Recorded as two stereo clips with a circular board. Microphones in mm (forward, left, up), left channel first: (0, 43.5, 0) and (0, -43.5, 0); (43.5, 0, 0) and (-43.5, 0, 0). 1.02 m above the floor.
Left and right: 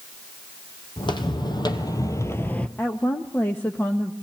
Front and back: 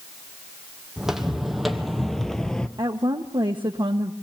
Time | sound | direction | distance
1.0 | footsteps | 95° left | 2 m
2.8 | a woman speaking | 155° left | 1.1 m